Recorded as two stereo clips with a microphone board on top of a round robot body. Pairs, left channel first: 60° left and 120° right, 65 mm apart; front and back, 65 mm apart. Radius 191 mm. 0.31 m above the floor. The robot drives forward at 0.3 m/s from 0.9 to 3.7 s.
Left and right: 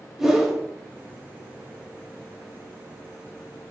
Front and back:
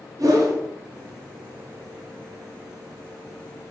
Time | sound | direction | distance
0.2 | a whoosh | 155° left | 0.8 m